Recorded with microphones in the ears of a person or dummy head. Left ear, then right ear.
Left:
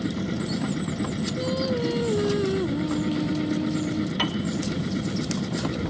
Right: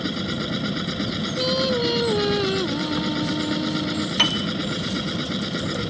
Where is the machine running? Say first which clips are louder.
Right 4 dB; 65° right (ahead or behind).